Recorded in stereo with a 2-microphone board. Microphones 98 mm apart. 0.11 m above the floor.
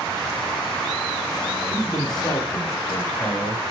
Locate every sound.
1.7 s a man speaking: 50° left (ahead or behind), 2.5 m; by 3.6 s 25° left (ahead or behind), 2.5 m